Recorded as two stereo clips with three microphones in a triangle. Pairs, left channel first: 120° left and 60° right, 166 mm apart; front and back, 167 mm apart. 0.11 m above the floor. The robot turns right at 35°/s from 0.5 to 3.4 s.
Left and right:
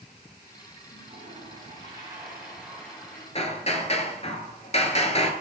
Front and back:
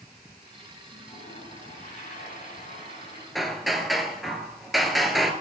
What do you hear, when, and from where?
0.9 s a toilet flushing: 30° right, 7 m; by 3.2 s 50° left, 7 m
3.4 s hammering: 90° left, 1.2 m